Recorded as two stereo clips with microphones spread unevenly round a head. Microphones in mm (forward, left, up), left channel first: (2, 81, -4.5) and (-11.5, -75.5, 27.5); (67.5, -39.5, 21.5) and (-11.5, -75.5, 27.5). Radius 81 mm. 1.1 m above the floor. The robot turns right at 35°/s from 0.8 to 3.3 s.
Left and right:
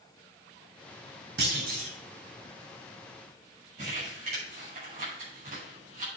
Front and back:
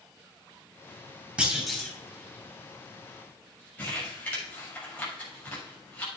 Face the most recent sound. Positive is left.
turn(degrees=-50)